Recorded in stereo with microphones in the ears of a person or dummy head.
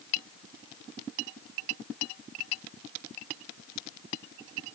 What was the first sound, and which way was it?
Only background noise.